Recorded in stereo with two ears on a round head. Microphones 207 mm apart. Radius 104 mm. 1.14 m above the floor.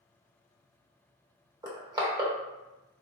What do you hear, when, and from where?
1.6 s crushing: 15° right (ahead or behind), 0.9 m